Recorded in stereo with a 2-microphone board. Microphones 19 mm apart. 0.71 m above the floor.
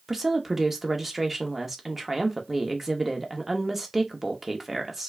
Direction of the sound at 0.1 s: 20° right (ahead or behind).